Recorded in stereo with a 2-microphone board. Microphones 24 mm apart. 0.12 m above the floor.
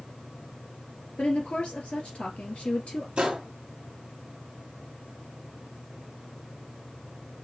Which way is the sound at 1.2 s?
55° left (ahead or behind).